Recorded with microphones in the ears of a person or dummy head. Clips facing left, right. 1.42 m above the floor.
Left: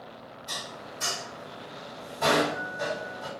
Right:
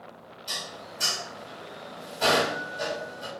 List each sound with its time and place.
0.5 s dishes clattering: 50° right (ahead or behind), 1.7 m